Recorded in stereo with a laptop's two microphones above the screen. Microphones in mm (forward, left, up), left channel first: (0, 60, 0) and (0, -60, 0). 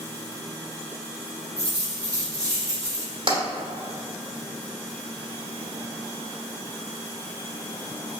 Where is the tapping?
45° right (ahead or behind), 1.5 m.